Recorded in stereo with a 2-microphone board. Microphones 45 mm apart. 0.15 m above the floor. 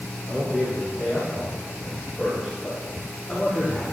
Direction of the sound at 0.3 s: 20° right (ahead or behind).